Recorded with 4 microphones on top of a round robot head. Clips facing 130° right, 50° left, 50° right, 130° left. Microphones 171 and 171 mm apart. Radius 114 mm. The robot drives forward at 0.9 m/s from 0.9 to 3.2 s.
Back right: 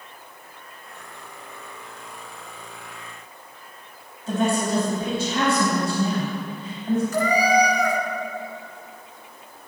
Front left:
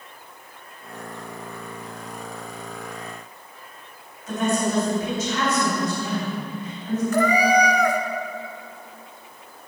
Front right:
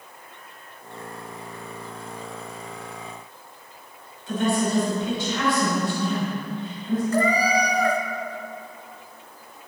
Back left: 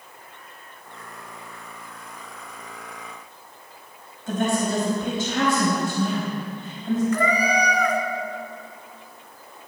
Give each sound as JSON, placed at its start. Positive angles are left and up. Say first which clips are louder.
{"t": 4.3, "sound": "a woman speaking", "louder": "back right 1 dB, even", "azimuth_deg": 170, "distance_m": 3.5}
{"t": 7.1, "sound": "a cat meowing", "louder": "front left 3 dB, front right 1 dB", "azimuth_deg": 10, "distance_m": 0.7}